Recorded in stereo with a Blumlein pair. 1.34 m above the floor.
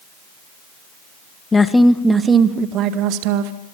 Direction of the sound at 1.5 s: 15° left.